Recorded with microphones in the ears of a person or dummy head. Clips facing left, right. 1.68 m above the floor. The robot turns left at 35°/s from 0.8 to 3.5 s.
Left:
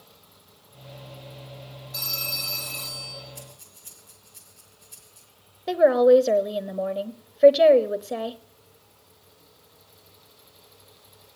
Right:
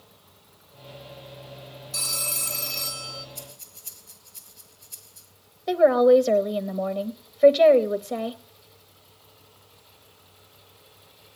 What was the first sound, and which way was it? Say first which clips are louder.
A phone ringing: right 2 dB; 125° right.